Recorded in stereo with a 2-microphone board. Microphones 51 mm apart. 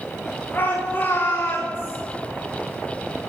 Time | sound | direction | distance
0.5 | a shout | 40° left (ahead or behind) | 4.5 m